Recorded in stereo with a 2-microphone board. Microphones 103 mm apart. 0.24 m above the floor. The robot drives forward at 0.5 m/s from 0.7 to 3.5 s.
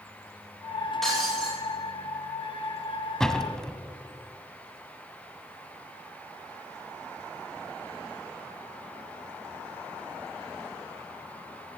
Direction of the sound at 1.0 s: 5° left (ahead or behind).